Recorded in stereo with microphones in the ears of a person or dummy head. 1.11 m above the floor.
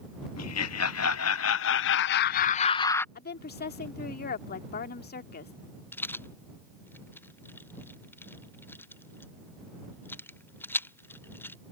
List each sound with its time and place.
0.4 s laughter: 80° left; by 3.0 s 15° left (ahead or behind)
3.1 s a woman speaking: 40° left (ahead or behind)
5.9 s a rattle: 5° left (ahead or behind)